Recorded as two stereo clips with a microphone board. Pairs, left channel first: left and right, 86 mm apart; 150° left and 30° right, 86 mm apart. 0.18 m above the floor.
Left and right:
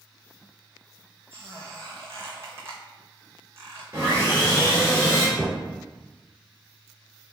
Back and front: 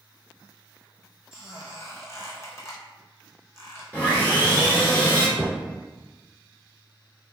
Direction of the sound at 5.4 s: 10° right.